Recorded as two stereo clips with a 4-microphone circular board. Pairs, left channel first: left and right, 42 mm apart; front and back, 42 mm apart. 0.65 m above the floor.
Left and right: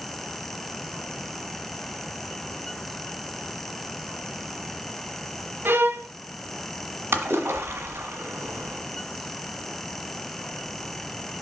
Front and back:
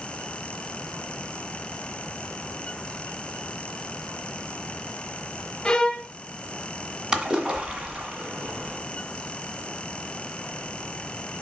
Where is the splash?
110° right, 1.8 m.